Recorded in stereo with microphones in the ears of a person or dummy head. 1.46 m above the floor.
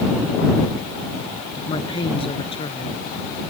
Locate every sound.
1.6 s a woman speaking: 25° left (ahead or behind)